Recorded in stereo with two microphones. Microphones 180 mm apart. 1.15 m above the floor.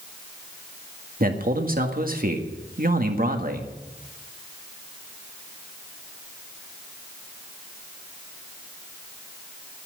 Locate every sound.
1.2 s a man speaking: 50° right (ahead or behind), 1.8 m